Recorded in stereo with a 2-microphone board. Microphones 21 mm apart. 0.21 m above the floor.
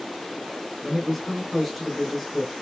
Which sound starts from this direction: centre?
A man speaking, at 0.8 s.